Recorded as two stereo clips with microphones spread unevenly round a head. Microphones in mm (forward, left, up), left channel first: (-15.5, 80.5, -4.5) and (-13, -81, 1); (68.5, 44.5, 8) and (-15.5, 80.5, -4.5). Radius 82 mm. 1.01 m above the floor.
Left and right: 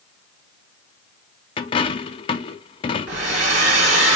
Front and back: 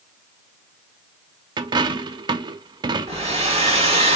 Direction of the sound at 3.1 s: 135° right.